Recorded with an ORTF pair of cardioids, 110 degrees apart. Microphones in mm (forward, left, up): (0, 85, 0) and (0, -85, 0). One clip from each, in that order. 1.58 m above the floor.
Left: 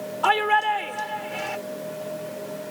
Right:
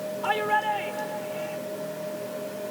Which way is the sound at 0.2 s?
60° left.